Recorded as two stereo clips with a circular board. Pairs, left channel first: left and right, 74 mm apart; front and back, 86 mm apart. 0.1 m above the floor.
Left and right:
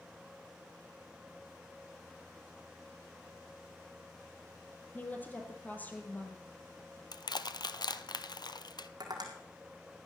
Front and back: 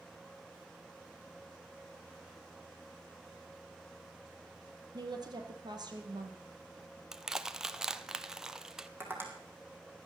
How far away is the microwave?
No microwave in this recording.